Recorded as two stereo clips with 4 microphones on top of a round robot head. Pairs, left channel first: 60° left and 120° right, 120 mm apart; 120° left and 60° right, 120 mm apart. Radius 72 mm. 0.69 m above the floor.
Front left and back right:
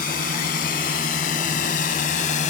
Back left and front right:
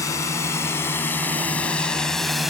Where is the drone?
55° left; by 2.5 s 30° left.